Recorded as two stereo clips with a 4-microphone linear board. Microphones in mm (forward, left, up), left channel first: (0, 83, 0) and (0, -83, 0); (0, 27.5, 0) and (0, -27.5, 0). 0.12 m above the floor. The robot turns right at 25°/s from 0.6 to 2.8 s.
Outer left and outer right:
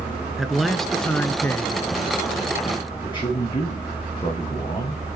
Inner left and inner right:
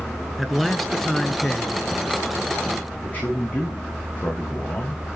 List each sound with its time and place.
0.4 s a man speaking: straight ahead, 1.3 m; by 1.9 s 30° left, 1.3 m
3.0 s a man speaking: 30° left (ahead or behind), 8 m